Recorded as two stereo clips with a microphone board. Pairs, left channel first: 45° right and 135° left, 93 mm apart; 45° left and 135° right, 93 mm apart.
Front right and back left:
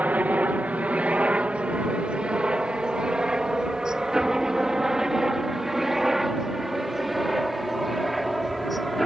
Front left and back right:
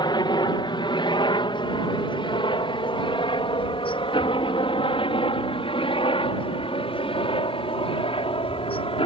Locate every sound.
0.0 s a helicopter: 65° left; by 9.1 s 45° left